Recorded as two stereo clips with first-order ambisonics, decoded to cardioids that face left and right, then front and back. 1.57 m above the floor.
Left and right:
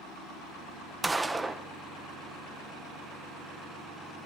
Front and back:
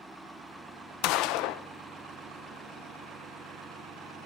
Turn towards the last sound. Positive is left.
turn(degrees=-5)